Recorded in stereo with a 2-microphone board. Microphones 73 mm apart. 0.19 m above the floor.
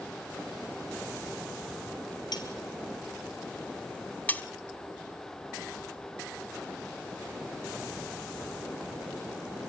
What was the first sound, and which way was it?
Cutlery clinking, 65° left (ahead or behind).